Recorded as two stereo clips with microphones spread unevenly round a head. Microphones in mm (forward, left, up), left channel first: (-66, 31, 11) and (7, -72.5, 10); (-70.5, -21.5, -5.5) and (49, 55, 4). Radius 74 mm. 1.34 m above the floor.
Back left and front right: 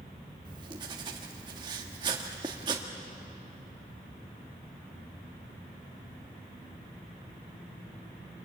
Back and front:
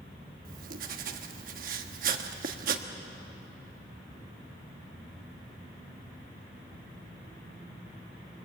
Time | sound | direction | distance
0.5 | writing | 10° left | 1.4 m